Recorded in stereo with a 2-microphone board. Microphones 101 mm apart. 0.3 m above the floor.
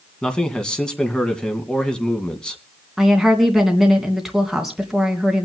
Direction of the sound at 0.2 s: 10° left (ahead or behind).